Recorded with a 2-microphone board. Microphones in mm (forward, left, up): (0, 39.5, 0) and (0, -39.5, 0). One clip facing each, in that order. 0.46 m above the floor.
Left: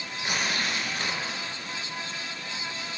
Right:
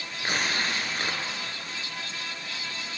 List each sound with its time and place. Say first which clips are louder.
0.2 s tearing paper: right 1 dB; 35° right (ahead or behind), 1.0 m